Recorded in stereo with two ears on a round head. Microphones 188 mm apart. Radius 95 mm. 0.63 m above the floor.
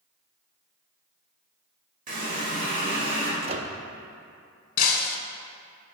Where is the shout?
I don't hear a shout.